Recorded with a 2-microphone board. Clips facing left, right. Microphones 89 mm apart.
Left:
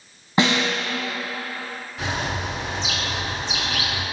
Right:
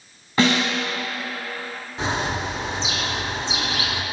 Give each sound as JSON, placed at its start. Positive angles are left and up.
{"t": 0.4, "sound": "a snare drum", "side_deg": 20, "distance_m": 1.1}
{"t": 2.0, "sound": "a bird", "side_deg": -30, "distance_m": 0.5}